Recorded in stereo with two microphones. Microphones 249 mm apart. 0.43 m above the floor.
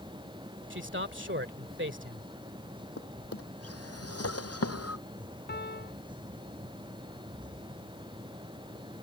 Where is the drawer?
75° left (ahead or behind).